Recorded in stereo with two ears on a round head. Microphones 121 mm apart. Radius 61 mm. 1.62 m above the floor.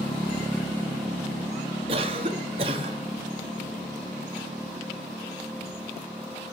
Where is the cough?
40° right (ahead or behind), 1.4 m.